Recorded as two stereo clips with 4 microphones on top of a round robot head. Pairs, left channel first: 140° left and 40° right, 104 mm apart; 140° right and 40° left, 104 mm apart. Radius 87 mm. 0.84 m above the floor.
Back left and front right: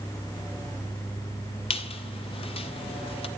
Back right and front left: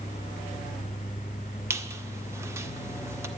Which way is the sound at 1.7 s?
105° left.